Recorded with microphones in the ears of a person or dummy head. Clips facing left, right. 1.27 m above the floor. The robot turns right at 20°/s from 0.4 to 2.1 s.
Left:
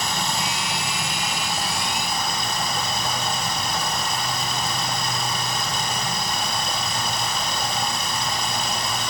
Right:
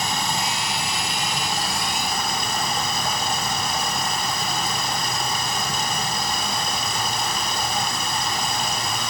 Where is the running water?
150° right, 5 m; by 9.1 s 120° right, 5 m.